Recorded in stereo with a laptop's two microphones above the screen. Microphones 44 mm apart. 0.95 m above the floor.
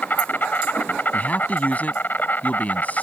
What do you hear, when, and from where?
0.0 s an insect: 45° left (ahead or behind)
1.1 s a man speaking: 35° left (ahead or behind)